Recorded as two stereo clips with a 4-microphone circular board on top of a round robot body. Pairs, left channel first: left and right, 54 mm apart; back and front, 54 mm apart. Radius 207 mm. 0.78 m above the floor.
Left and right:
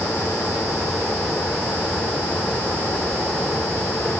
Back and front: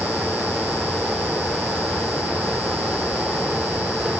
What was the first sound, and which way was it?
Only background noise.